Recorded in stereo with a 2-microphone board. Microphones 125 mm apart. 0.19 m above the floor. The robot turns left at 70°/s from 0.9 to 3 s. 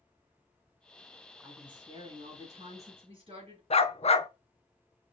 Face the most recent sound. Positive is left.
turn(degrees=50)  # may be behind; listen again after turning